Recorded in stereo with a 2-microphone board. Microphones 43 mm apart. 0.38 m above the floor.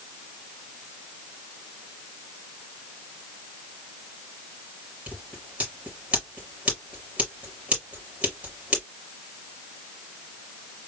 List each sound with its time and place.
5.1 s scissors: 30° right (ahead or behind), 4 m